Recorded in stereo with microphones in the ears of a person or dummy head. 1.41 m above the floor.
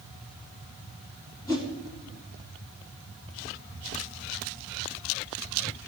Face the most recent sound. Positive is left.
turn(degrees=20)  # may be behind; listen again after turning